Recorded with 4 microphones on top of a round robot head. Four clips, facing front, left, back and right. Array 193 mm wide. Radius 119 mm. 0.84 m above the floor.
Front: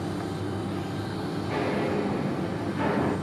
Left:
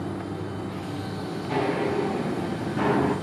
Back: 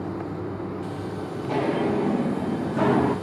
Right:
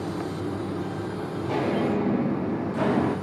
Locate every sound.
1.4 s footsteps: 130° right, 3.5 m; by 3.1 s 170° right, 3.5 m